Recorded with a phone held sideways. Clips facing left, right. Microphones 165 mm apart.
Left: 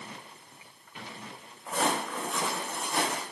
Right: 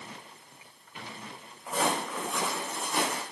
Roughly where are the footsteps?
Centre.